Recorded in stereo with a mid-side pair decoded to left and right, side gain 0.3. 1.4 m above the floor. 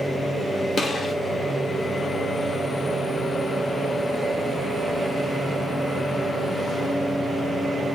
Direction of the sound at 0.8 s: 70° left.